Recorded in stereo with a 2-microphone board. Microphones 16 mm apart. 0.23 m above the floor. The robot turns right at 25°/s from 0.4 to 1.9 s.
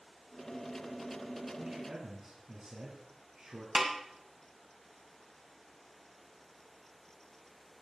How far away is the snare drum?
About 2.5 m.